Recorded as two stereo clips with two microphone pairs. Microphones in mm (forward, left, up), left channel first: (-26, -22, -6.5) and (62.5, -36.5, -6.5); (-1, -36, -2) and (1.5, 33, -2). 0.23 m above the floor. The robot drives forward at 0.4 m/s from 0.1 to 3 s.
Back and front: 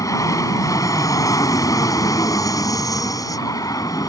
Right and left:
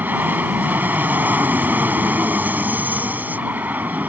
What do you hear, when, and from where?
0.0 s an aircraft: 140° left; by 4.1 s 145° left